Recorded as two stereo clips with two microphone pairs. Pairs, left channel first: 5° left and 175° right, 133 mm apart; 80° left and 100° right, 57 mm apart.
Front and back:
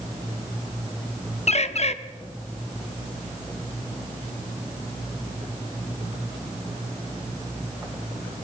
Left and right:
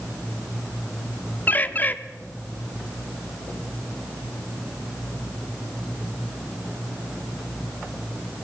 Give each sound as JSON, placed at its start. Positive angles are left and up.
{"t": 1.5, "sound": "a bird", "azimuth_deg": 30, "distance_m": 0.6}